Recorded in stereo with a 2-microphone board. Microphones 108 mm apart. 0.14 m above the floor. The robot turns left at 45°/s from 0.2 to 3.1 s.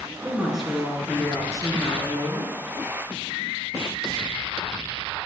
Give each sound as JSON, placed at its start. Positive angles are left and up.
{"t": 0.2, "sound": "a woman speaking", "azimuth_deg": -165, "distance_m": 1.8}